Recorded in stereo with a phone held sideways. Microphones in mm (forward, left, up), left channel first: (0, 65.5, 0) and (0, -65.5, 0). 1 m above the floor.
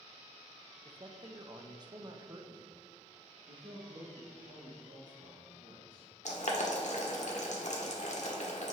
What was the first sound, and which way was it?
A man speaking, 30° right (ahead or behind).